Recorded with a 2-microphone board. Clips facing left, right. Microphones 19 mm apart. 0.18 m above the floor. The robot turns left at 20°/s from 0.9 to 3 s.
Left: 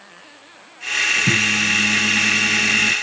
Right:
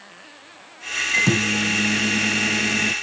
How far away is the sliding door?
I don't hear a sliding door.